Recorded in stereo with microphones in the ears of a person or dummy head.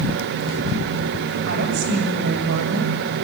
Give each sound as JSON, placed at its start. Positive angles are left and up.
{"t": 1.5, "sound": "a woman speaking", "side_deg": -65, "distance_m": 7.0}